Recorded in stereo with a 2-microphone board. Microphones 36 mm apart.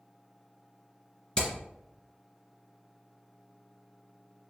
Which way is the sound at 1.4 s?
25° left (ahead or behind).